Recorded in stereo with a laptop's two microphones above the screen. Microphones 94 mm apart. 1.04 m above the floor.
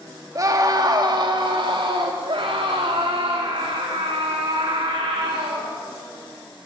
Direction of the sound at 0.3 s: 35° right (ahead or behind).